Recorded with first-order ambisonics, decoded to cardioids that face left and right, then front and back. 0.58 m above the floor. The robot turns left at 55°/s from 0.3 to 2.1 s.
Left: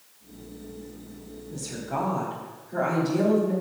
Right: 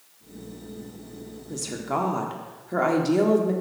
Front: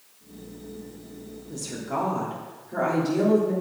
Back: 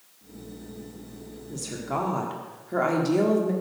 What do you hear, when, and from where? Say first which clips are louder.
1.5 s a woman speaking: right 3 dB, even; 90° right, 1.3 m; by 3.5 s 120° right, 1.3 m